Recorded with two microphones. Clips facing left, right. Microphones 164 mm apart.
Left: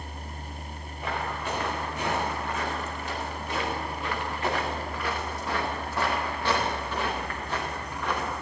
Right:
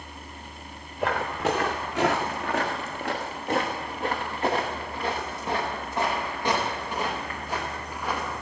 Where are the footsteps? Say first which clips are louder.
Right 6 dB; 75° right (ahead or behind), 2 m; by 8.3 s 5° right (ahead or behind), 4.5 m.